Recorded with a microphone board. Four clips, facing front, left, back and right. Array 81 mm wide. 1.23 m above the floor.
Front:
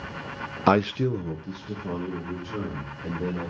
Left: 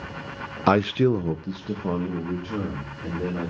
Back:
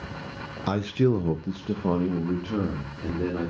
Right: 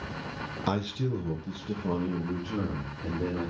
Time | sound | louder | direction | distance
0.7 | a man speaking | left 12 dB, front 2 dB | 40° left | 0.6 m